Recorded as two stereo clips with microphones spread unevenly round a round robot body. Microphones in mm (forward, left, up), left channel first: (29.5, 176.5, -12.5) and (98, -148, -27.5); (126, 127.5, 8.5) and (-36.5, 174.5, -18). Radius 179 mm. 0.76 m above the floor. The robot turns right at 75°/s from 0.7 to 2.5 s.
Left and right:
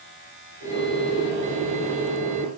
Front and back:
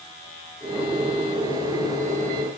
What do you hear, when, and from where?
Only background noise.